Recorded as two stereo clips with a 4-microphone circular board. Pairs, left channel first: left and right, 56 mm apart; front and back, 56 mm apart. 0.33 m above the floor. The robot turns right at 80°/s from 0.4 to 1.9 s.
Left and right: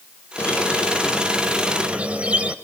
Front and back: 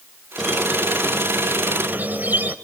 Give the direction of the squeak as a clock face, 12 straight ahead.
9 o'clock.